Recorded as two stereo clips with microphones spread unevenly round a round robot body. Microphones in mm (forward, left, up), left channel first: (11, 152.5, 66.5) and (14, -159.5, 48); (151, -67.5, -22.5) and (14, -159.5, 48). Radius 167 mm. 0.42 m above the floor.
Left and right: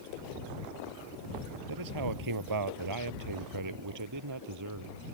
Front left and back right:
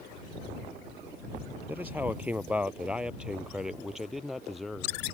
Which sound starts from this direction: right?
A man speaking, at 1.7 s.